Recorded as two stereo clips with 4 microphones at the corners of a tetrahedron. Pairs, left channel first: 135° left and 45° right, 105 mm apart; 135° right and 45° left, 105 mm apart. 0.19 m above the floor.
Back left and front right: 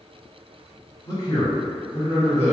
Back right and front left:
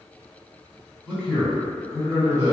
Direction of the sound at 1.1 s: 150° left.